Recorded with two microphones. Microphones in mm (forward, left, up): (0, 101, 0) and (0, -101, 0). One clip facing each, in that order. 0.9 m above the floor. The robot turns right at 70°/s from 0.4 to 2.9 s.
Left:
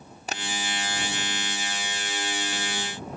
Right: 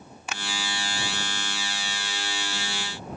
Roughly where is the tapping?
Left.